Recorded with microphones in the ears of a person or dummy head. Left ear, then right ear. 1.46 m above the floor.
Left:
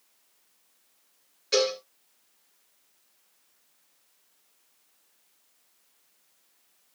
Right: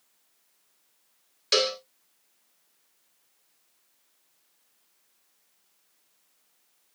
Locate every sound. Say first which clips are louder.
1.5 s a cowbell: right 1 dB; 40° right (ahead or behind), 0.8 m